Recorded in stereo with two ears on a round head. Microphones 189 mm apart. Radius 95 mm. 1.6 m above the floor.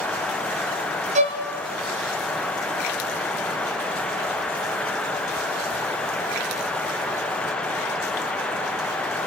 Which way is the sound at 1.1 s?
35° right (ahead or behind).